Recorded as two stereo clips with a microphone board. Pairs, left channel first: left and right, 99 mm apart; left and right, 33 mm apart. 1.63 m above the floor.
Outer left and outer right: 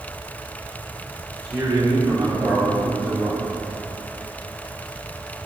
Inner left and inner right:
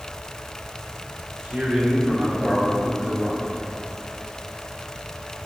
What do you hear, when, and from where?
1.4 s a man speaking: 40° right (ahead or behind), 4 m; by 3.4 s 20° right (ahead or behind), 3 m